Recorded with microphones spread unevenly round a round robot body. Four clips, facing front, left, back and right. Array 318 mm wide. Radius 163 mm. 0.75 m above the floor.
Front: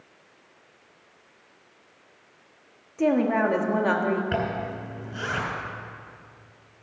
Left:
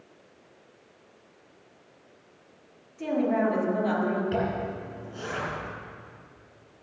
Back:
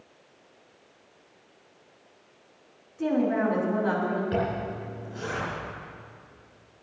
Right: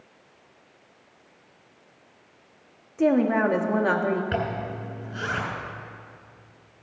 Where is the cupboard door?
I don't hear a cupboard door.